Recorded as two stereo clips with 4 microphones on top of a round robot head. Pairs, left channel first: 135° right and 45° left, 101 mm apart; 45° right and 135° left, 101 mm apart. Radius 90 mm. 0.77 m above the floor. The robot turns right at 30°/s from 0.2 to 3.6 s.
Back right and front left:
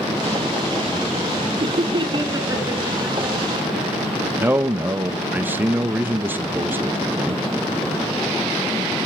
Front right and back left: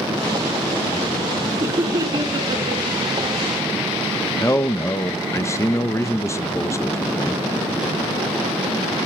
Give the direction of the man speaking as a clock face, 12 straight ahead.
12 o'clock.